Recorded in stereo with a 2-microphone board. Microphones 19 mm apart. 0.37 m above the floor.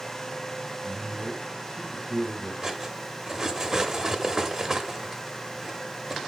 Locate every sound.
0.8 s a man speaking: 35° right (ahead or behind), 1.1 m
2.6 s cutlery clinking: 25° right (ahead or behind), 0.7 m